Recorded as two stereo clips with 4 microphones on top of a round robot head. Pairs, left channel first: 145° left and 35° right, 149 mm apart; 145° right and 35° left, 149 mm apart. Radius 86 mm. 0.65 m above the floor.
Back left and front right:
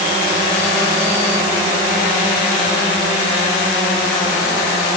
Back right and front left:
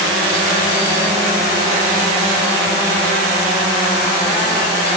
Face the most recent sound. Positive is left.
No sound to turn to.